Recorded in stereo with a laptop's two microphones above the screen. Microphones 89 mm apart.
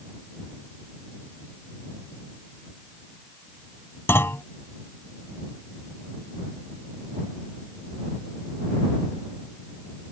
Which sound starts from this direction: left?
A clunk, at 4.1 s.